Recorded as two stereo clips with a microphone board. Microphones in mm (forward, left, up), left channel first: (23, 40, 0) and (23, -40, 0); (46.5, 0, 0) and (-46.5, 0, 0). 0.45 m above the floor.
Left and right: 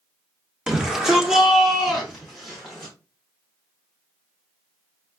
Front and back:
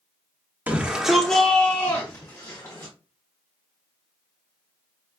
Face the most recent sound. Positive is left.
turn(degrees=0)